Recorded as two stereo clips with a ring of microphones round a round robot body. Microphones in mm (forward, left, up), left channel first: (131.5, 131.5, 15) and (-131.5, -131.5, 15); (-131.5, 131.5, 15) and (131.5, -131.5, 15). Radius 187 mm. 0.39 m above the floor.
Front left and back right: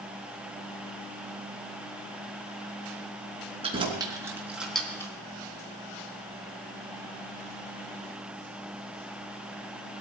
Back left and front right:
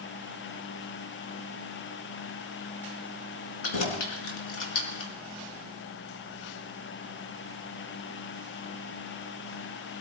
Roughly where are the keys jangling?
Behind left.